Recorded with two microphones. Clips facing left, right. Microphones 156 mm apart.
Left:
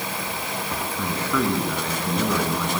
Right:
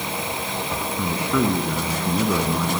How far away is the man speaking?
About 3 m.